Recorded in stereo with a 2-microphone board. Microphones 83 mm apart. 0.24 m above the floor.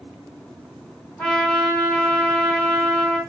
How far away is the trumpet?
About 1.9 m.